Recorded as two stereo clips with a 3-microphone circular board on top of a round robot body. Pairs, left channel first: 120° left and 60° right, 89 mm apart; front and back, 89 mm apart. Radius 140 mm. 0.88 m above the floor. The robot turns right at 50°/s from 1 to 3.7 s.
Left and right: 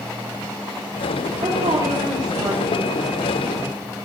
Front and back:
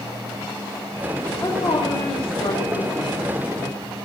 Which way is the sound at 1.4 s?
55° right.